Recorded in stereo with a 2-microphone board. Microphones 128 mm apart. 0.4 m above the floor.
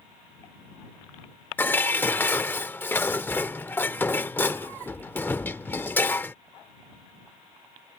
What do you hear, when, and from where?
1.6 s dishes clattering: 15° left (ahead or behind)